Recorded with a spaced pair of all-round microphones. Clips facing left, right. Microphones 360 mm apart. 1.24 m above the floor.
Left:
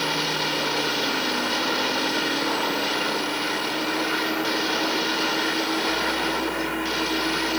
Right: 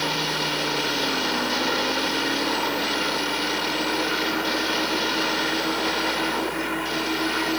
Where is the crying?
No crying in this recording.